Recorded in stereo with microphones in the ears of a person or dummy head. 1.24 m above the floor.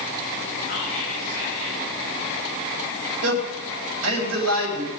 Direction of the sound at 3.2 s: 90° right.